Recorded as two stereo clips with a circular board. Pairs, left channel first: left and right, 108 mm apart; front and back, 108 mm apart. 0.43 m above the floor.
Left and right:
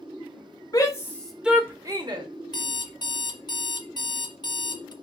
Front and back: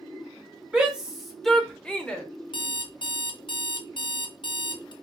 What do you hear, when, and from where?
0.7 s a shout: 105° left, 0.9 m; by 2.2 s 75° right, 1.1 m
2.5 s an alarm clock: 45° left, 0.6 m